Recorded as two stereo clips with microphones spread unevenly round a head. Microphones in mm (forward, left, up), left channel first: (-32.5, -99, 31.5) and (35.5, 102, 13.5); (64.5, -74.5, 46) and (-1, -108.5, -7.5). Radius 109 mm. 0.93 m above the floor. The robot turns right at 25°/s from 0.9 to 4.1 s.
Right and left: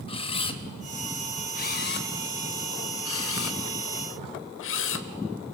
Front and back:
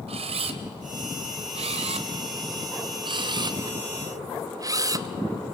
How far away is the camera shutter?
About 1.1 m.